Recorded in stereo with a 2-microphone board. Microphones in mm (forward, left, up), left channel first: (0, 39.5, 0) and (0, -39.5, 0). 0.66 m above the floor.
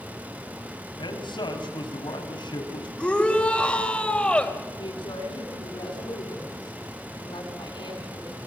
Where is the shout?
15° left (ahead or behind), 3 m.